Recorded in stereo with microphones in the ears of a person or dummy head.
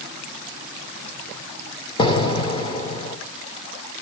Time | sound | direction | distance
2.0 | an explosion | 30° left (ahead or behind) | 1.0 m